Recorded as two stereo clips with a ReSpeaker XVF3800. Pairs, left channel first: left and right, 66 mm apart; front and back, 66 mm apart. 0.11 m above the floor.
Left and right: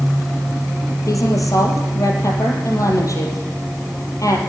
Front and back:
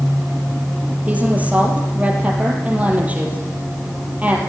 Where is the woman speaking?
115° left, 3.5 m.